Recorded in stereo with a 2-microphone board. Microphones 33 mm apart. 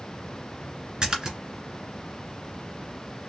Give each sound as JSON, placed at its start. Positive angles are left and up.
{"t": 1.0, "sound": "a splash", "side_deg": -20, "distance_m": 1.7}